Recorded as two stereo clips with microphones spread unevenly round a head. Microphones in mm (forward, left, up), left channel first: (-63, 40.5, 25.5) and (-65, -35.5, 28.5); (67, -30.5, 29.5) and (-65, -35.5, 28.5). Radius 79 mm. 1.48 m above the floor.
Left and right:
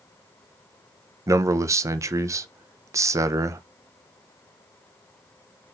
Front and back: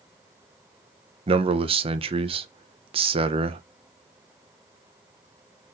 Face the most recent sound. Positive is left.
turn(degrees=-135)